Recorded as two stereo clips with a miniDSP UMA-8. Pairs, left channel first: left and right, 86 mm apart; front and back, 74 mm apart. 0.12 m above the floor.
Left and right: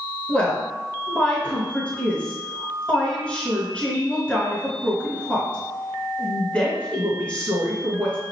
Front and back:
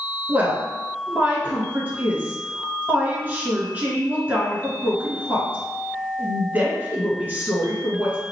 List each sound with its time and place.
0.3 s a woman speaking: 150° left, 1.3 m